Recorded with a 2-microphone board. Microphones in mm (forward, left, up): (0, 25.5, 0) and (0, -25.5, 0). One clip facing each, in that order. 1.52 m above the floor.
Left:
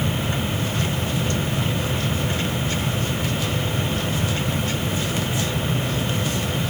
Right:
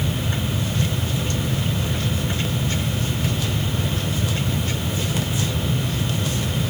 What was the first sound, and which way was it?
Only background noise.